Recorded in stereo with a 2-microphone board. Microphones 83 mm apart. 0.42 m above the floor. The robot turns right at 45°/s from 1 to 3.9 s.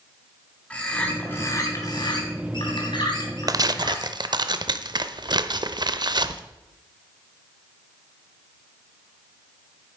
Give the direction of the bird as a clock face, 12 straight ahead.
12 o'clock.